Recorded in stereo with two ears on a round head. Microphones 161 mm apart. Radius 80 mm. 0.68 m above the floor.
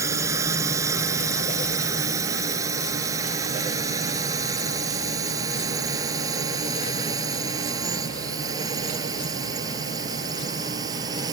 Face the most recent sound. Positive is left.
turn(degrees=-25)  # may be behind; listen again after turning